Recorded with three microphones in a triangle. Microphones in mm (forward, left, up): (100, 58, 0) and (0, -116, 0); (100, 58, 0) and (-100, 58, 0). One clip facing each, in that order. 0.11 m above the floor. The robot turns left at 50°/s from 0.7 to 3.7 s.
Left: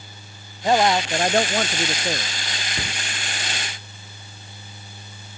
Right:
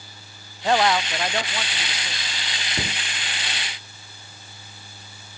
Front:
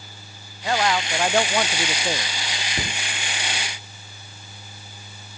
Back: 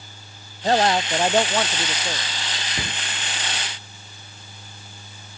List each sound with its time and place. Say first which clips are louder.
0.6 s a man speaking: left 2 dB, back 4 dB; 135° left; by 2.3 s 55° left
2.8 s a cupboard door: right 4 dB, front 1 dB; 70° right; by 3.0 s 80° right